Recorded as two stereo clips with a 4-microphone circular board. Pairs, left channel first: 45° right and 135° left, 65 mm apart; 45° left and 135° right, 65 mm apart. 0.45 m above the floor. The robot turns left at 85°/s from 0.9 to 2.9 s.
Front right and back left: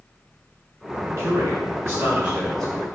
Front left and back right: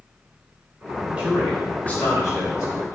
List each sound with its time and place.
1.2 s a man speaking: 160° left, 1.9 m; by 3.0 s 10° left, 1.9 m